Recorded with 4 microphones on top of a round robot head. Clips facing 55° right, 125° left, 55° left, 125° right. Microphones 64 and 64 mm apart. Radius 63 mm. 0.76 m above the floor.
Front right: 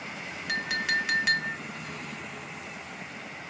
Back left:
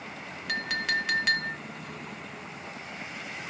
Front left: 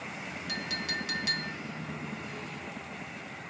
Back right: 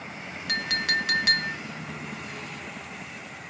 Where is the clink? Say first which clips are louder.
Front right 1 dB, back right 10 dB; 140° right, 0.6 m.